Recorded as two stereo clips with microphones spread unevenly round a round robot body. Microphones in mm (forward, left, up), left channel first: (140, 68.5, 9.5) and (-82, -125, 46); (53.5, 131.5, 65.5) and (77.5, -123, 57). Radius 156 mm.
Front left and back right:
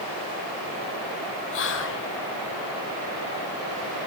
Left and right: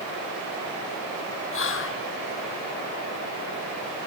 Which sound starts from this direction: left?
Whispering, at 1.5 s.